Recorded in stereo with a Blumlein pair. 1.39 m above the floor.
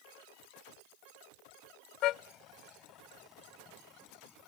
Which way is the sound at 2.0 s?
35° left.